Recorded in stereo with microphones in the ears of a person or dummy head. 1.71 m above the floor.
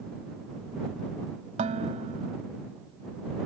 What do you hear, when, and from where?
1.6 s dishes clattering: 40° right (ahead or behind)